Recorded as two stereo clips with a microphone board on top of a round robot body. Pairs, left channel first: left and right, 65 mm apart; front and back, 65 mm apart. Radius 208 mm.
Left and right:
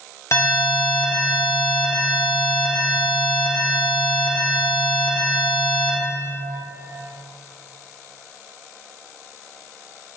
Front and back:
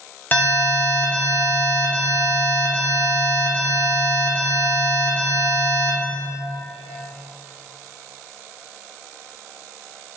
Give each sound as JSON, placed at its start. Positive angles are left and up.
{"t": 0.3, "sound": "an alarm", "azimuth_deg": 55, "distance_m": 1.9}